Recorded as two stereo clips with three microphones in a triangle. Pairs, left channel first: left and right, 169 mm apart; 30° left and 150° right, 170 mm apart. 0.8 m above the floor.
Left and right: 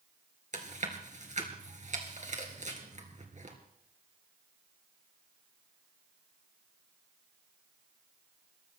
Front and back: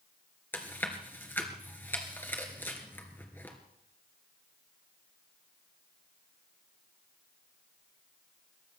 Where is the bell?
I don't hear a bell.